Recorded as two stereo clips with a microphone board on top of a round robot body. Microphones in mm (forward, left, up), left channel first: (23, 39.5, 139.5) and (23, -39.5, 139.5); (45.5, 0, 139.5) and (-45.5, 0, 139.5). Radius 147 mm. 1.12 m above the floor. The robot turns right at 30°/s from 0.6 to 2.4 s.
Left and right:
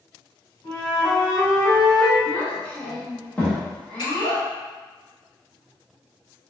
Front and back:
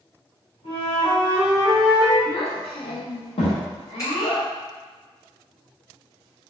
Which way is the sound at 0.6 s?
20° left.